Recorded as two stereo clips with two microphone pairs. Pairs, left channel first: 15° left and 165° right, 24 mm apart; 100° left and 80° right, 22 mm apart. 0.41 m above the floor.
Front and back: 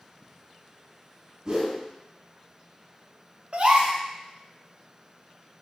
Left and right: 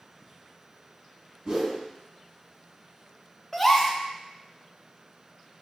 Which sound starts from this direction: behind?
A gasp, at 3.5 s.